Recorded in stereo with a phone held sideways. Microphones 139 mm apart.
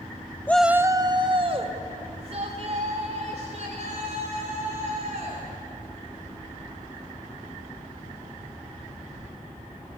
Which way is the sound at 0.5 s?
15° left (ahead or behind).